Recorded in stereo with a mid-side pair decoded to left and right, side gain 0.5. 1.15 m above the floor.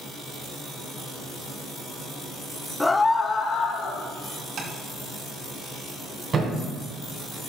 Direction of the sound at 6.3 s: 45° right.